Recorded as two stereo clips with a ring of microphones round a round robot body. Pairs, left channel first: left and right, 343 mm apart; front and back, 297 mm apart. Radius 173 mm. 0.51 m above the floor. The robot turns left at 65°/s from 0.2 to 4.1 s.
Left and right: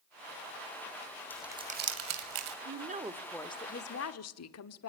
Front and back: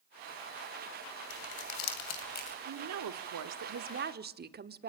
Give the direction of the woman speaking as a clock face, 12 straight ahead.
5 o'clock.